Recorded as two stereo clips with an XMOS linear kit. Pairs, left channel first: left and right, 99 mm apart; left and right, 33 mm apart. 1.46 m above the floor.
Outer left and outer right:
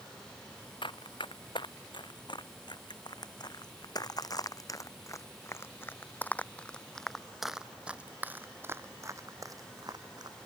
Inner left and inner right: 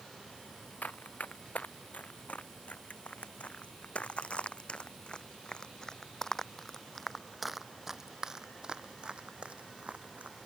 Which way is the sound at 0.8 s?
60° left (ahead or behind).